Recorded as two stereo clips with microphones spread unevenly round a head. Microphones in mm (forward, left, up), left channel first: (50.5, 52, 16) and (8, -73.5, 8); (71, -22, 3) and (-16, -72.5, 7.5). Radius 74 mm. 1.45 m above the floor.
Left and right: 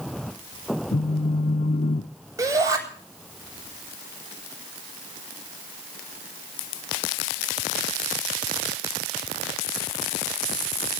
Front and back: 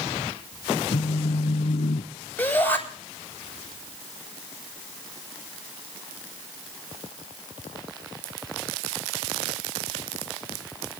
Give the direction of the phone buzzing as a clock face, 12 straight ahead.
11 o'clock.